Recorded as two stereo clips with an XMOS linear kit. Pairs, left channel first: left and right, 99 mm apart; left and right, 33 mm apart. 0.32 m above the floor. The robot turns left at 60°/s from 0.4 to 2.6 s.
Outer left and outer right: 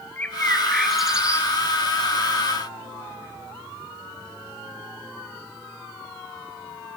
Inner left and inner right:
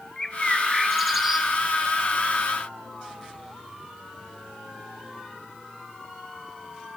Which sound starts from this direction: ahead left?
A bird, at 0.2 s.